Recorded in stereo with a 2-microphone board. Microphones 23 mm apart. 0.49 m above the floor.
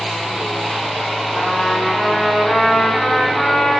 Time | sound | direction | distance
1.3 | a trumpet | 25° left (ahead or behind) | 9.5 m